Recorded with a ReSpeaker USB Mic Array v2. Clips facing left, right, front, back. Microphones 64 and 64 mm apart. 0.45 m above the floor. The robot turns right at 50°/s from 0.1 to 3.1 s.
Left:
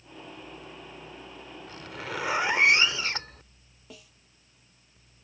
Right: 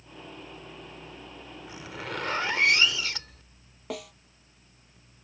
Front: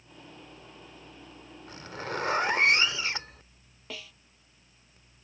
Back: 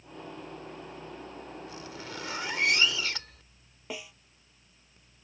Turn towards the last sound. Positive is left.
turn(degrees=-110)